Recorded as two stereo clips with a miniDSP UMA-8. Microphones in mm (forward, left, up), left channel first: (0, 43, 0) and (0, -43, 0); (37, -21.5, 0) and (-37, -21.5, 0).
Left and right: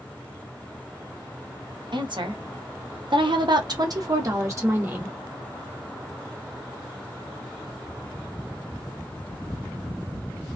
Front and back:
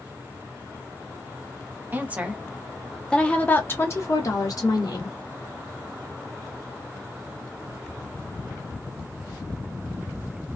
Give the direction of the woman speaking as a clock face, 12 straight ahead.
4 o'clock.